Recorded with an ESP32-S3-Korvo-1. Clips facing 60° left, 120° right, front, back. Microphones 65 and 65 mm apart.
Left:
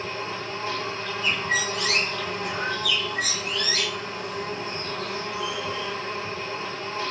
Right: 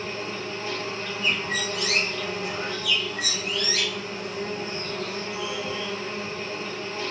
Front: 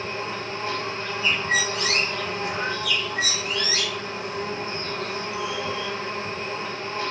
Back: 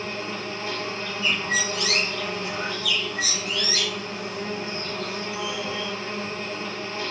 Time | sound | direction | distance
0.0 | an insect | 25° left | 1.9 m
1.2 | a bird | 40° left | 1.6 m